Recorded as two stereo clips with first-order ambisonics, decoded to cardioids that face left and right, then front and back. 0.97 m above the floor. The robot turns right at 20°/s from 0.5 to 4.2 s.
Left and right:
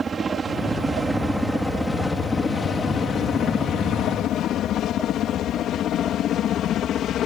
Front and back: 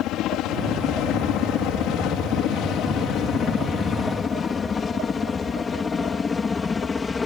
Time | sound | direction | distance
0.0 | a helicopter | 20° right | ?